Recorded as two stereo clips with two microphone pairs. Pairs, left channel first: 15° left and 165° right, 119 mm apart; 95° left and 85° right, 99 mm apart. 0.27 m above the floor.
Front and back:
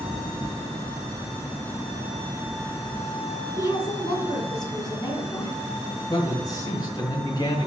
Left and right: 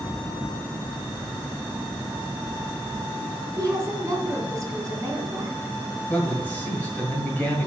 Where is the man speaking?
35° left, 1.8 m.